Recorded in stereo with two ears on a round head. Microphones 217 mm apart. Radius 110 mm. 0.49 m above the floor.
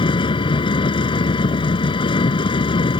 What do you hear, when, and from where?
0.0 s an engine running: 20° left (ahead or behind)